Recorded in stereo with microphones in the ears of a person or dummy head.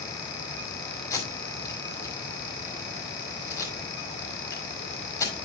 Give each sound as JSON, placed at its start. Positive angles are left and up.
{"t": 1.1, "sound": "tape being pulled", "side_deg": 15, "distance_m": 5.5}